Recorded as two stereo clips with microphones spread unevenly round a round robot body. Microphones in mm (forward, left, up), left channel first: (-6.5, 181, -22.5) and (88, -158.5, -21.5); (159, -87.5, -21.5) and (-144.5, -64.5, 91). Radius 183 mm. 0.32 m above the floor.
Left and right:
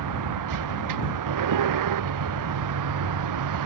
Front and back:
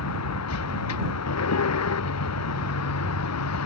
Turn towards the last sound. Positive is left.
turn(degrees=-40)